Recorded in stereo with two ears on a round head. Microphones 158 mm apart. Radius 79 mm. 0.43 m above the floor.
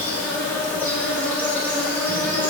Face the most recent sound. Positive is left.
turn(degrees=10)  # may be behind; listen again after turning